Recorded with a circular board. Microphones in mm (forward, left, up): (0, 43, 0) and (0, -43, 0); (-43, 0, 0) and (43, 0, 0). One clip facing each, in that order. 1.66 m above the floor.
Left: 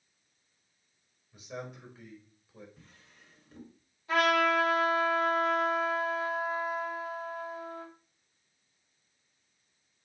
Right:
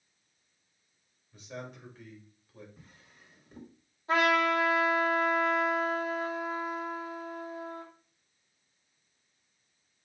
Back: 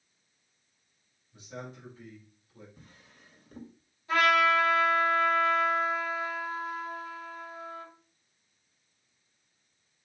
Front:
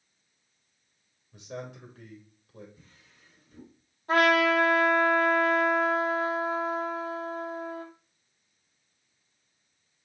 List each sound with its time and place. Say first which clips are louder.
1.3 s a man speaking: left 1 dB, front 3 dB; 5° left, 3 m
2.8 s a drawer: right 1 dB, back 3 dB; 170° right, 2 m
4.1 s a trumpet: even, front 2 dB; 35° right, 3 m